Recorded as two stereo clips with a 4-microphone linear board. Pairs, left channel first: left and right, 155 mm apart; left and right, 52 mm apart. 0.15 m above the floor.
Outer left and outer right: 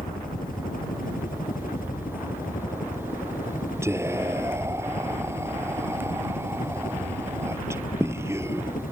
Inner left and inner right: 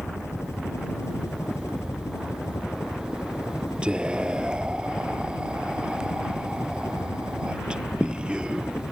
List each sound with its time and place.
0.0 s a helicopter: 60° left (ahead or behind)
3.8 s whispering: 15° right (ahead or behind)